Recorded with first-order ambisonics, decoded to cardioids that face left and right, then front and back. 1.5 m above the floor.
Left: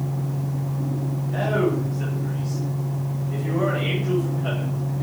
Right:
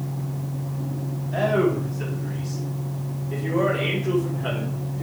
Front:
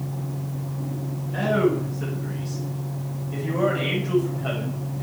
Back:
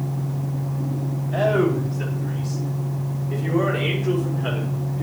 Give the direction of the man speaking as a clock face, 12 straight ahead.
6 o'clock.